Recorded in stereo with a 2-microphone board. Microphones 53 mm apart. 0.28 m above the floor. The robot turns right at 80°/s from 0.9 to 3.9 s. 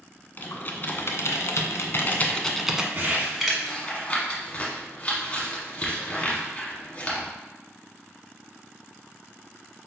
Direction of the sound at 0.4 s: 40° left (ahead or behind).